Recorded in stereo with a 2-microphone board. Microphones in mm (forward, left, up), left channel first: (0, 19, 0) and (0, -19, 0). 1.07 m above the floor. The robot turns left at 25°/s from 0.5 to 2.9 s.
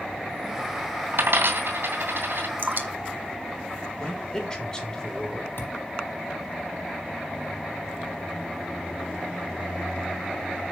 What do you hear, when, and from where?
1.1 s a dropped coin: 70° right (ahead or behind), 2.5 m; by 2.5 s 65° right (ahead or behind), 2.5 m
2.6 s dripping: 60° right (ahead or behind), 1.7 m; by 4.4 s 55° right (ahead or behind), 1.7 m
4.0 s a man speaking: 20° left (ahead or behind), 3 m
5.6 s a thud: 75° left (ahead or behind), 5.5 m